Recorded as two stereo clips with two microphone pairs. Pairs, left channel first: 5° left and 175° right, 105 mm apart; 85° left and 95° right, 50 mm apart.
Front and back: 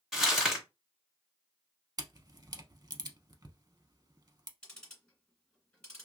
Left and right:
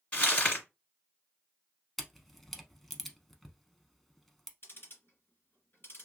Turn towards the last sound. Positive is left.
turn(degrees=80)